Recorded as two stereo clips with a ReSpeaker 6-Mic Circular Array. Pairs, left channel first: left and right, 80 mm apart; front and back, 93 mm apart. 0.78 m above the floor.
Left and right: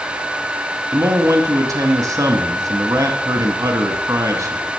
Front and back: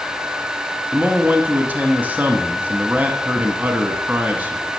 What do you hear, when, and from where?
0.9 s a man speaking: 110° right, 0.9 m